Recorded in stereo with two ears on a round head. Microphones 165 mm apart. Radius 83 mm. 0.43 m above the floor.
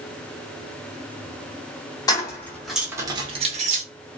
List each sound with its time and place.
2.1 s keys jangling: 20° left (ahead or behind), 1.1 m; by 3.8 s 40° right (ahead or behind), 1.0 m